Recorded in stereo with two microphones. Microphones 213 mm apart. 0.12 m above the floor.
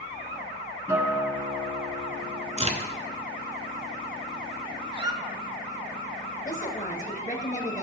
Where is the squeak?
20° right (ahead or behind), 0.6 m.